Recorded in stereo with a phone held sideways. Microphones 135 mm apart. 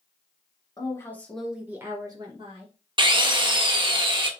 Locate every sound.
0.8 s a woman speaking: 25° left (ahead or behind), 1.0 m; by 2.7 s 45° right (ahead or behind), 1.3 m
3.0 s a drill: 35° right (ahead or behind), 0.6 m